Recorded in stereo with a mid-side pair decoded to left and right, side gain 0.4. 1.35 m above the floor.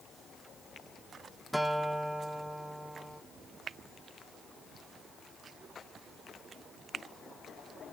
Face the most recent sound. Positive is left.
turn(degrees=-5)